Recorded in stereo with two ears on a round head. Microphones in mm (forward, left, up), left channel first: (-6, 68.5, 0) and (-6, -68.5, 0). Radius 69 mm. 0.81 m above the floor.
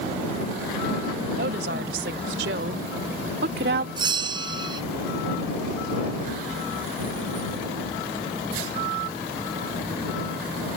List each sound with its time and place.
1.4 s a woman speaking: 80° right; by 3.9 s 70° right (ahead or behind)
4.0 s a bell: 30° right (ahead or behind)